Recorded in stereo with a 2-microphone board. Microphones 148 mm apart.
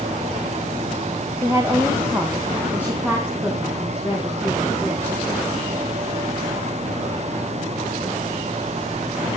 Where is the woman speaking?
20° right (ahead or behind), 2.5 m; by 5.2 s 5° right (ahead or behind), 7 m.